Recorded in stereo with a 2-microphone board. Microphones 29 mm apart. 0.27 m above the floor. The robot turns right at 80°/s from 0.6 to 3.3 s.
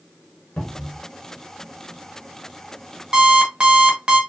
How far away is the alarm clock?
About 1.0 m.